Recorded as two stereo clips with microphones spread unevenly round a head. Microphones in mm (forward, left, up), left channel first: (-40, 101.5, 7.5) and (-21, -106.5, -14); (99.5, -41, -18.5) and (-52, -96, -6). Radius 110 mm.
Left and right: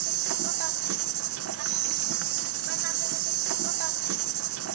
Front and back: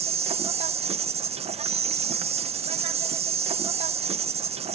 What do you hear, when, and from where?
0.0 s an insect: 105° right